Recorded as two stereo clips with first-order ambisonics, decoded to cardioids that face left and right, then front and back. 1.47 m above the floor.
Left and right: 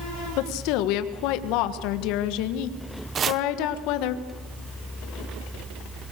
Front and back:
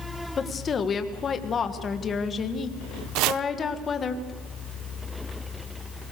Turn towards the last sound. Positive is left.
turn(degrees=-155)